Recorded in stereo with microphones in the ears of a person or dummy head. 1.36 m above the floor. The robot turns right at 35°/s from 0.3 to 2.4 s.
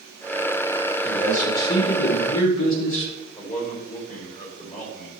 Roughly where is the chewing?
No chewing in this recording.